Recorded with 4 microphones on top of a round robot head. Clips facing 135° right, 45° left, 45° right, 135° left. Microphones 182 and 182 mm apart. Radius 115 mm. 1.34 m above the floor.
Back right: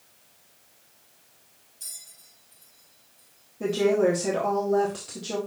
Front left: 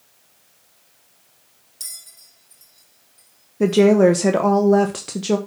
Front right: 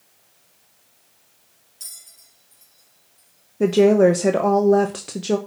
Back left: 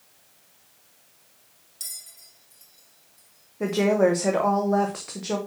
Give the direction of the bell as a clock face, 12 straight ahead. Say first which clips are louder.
Front left 4 dB, back left 1 dB; 10 o'clock.